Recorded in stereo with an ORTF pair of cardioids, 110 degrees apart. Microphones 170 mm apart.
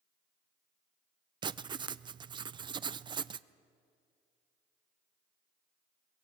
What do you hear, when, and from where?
1.4 s writing: 30° right, 0.5 m